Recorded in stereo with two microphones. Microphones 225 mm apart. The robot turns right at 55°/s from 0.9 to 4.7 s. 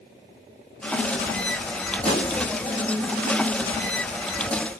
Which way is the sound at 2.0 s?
150° left.